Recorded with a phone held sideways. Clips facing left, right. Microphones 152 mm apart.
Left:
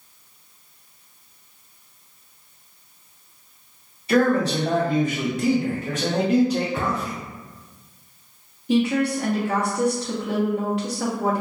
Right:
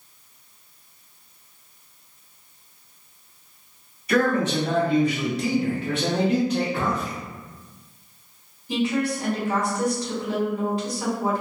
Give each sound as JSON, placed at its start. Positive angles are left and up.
{"t": 4.1, "sound": "a man speaking", "side_deg": 30, "distance_m": 1.0}
{"t": 6.8, "sound": "a thud", "side_deg": 45, "distance_m": 1.2}
{"t": 8.7, "sound": "a woman speaking", "side_deg": 70, "distance_m": 1.2}